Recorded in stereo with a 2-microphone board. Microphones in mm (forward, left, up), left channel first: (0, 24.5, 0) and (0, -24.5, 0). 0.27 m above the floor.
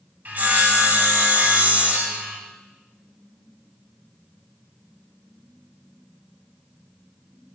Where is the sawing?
40° right (ahead or behind), 2 m.